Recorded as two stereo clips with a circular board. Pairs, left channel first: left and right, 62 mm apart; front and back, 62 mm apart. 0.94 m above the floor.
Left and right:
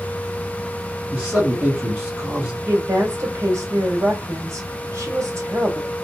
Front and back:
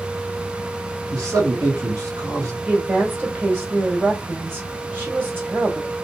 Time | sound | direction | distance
1.1 | a man speaking | 170° right | 1.6 m
2.7 | a woman speaking | 125° right | 1.7 m